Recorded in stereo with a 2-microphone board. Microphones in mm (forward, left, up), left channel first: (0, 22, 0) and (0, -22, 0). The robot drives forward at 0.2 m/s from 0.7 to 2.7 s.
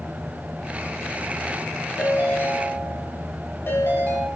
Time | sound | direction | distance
2.0 | a ringtone | 70° left (ahead or behind) | 3 m